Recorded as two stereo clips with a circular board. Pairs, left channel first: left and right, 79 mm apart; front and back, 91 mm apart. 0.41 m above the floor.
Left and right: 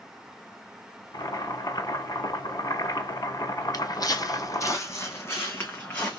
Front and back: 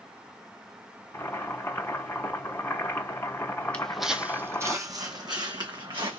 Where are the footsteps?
75° left, 0.6 m; by 6.2 s 155° left, 1.5 m.